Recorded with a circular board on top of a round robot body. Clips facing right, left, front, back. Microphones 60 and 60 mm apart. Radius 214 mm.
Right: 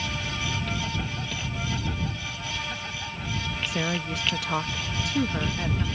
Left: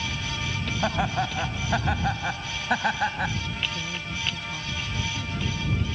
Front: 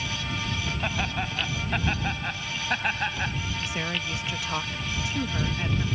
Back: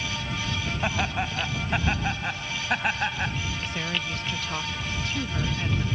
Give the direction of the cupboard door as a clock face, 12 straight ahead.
No cupboard door in this recording.